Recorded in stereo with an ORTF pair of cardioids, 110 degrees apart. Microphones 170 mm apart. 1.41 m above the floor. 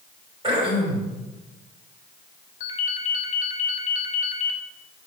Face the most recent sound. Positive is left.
turn(degrees=50)